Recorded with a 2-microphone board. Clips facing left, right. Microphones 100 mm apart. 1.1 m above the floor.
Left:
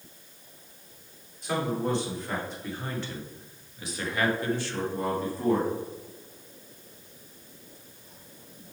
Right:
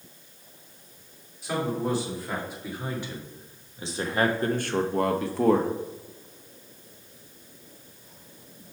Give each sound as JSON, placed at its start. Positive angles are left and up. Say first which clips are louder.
{"t": 1.4, "sound": "a man speaking", "louder": "even", "side_deg": -5, "distance_m": 2.5}